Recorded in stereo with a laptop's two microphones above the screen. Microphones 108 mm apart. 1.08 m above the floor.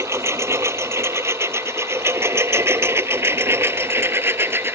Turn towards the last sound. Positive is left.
turn(degrees=-20)  # may be behind; listen again after turning